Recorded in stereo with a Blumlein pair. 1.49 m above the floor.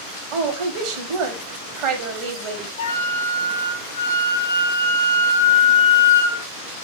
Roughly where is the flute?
Ahead left.